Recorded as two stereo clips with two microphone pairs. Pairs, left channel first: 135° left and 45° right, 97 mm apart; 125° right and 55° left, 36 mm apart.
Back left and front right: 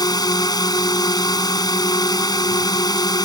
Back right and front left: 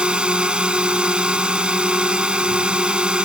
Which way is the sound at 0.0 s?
105° left.